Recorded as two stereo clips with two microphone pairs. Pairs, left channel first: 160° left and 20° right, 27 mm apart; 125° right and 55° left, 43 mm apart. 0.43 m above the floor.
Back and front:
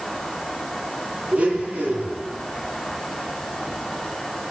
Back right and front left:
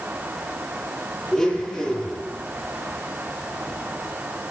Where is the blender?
45° right, 7.5 m.